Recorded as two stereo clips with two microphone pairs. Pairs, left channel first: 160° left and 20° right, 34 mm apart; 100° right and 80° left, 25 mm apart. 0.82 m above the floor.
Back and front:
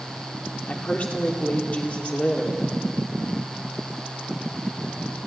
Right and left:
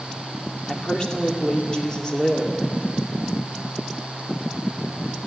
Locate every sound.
0.7 s a woman speaking: 155° right, 2.5 m